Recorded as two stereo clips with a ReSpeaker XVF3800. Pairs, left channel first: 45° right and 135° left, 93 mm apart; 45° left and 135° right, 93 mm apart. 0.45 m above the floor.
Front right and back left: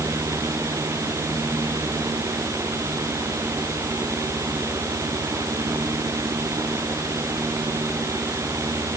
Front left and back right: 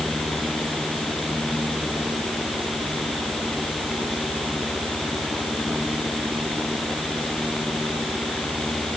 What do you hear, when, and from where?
Only background noise.